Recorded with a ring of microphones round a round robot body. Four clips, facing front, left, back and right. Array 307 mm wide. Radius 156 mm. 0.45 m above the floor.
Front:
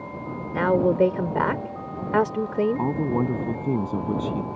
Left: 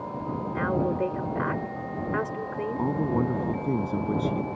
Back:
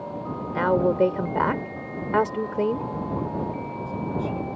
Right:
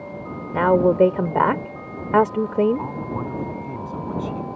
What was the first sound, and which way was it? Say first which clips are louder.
A woman speaking: right 11 dB, front 1 dB; 80° right.